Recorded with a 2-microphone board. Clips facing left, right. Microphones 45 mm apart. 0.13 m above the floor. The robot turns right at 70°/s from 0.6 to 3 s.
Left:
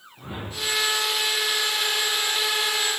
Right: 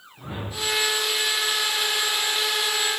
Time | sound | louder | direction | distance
0.2 | a whoosh | right 1 dB | 5° left (ahead or behind) | 2.5 m